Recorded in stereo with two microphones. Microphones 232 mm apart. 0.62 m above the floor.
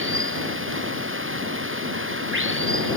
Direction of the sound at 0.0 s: 55° right (ahead or behind).